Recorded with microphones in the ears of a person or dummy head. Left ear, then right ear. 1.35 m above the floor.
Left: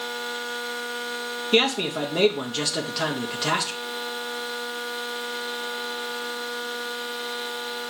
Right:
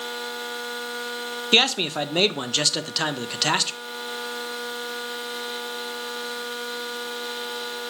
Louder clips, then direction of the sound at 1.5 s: Right 2 dB; 35° right (ahead or behind).